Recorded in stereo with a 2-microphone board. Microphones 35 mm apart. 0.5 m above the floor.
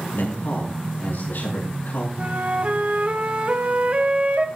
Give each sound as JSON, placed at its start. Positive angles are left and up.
{"t": 0.1, "sound": "a man speaking", "side_deg": 70, "distance_m": 7.0}
{"t": 2.2, "sound": "a flute", "side_deg": -40, "distance_m": 1.4}